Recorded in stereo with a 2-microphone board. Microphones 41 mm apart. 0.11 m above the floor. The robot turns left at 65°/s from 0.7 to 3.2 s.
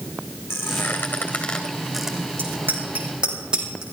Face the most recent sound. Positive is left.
turn(degrees=-20)  # may be behind; listen again after turning